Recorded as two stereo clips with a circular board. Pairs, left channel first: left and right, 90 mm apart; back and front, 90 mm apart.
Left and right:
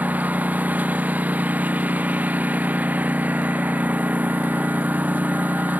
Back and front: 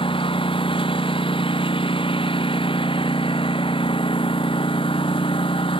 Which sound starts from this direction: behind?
A lawn mower, at 0.0 s.